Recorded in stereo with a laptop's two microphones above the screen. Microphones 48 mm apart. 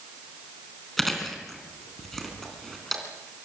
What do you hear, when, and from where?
1.0 s chewing: 5° left (ahead or behind), 3.5 m